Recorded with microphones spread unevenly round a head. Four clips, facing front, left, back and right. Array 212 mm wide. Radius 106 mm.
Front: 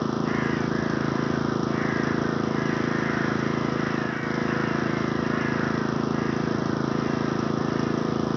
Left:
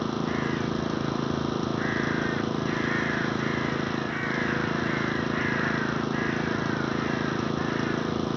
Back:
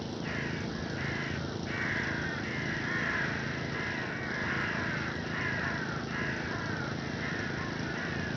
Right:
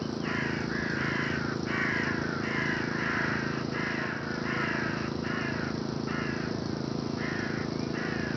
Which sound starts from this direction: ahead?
An engine running, at 0.0 s.